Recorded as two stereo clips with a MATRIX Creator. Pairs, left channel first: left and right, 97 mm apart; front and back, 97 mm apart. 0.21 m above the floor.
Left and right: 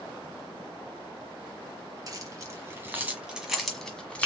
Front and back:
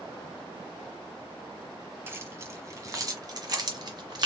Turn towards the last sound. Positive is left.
turn(degrees=160)